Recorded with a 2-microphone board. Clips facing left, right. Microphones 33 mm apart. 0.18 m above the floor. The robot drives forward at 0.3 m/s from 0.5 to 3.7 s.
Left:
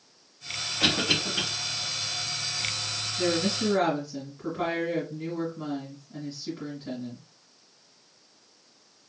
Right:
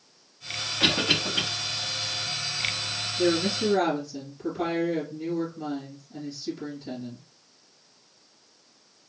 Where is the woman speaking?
45° left (ahead or behind), 2.5 m.